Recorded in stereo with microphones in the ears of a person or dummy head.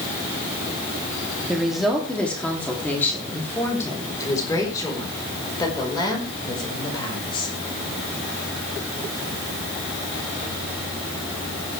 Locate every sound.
1.5 s a woman speaking: 5° right (ahead or behind), 2.5 m; by 7.5 s 25° left (ahead or behind), 6 m